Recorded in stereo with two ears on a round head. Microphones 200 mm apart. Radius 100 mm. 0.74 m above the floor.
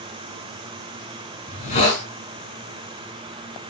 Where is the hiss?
35° left (ahead or behind), 6.5 m.